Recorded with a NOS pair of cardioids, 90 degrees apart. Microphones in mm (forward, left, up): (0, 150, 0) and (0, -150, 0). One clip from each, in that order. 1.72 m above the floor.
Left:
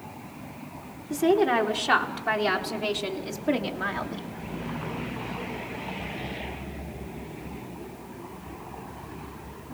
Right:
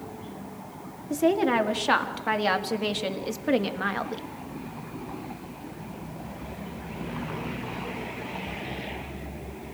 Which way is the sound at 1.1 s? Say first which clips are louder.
Left 1 dB; 10° right.